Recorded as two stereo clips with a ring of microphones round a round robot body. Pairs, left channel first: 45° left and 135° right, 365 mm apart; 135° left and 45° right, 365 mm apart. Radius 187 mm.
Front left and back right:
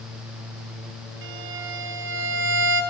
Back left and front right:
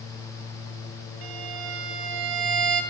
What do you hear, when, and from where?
1.2 s a violin: 75° right, 4 m